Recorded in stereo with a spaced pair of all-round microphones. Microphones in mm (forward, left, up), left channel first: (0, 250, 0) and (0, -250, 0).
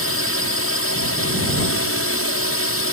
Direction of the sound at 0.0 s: 25° left (ahead or behind).